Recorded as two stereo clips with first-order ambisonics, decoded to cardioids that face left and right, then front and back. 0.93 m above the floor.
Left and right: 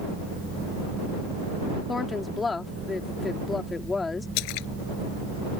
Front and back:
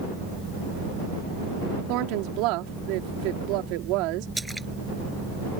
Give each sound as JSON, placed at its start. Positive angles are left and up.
{"t": 1.9, "sound": "a woman speaking", "azimuth_deg": 165}
{"t": 4.4, "sound": "a splash", "azimuth_deg": 95}